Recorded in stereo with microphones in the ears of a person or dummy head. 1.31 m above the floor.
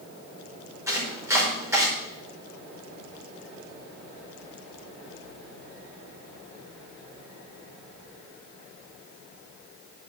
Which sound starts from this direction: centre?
Chopping, at 0.9 s.